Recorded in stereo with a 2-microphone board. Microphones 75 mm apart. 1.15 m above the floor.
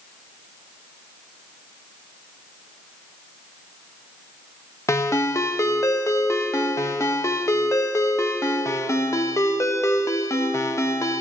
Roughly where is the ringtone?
Left.